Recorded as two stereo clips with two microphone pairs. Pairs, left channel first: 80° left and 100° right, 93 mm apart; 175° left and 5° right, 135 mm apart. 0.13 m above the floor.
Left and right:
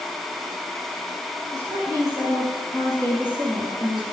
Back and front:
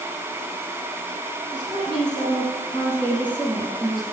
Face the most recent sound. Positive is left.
turn(degrees=-95)